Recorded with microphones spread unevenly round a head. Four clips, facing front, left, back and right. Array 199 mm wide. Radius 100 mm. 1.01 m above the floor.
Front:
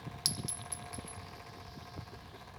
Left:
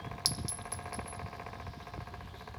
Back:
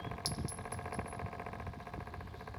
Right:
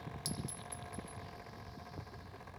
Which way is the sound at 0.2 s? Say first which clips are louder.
Left 3 dB, back 2 dB; 40° left.